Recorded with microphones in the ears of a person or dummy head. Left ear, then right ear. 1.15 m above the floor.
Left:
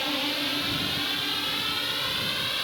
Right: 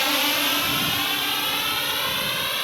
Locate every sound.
0.0 s a drone: 50° right (ahead or behind); by 2.6 s 30° right (ahead or behind)